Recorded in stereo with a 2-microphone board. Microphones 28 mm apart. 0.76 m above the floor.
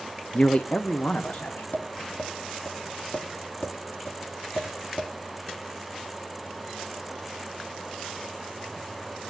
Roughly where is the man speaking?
Left.